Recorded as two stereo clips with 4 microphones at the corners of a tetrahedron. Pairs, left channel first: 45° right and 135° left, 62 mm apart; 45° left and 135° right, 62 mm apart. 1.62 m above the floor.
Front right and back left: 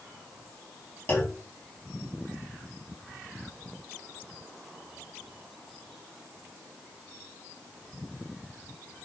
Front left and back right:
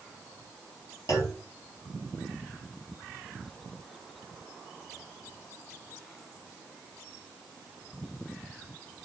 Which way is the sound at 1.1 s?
10° left.